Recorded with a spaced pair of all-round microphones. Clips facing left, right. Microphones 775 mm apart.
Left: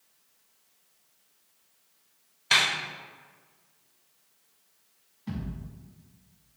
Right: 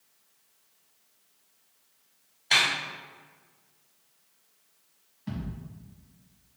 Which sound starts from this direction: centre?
A thud, at 5.3 s.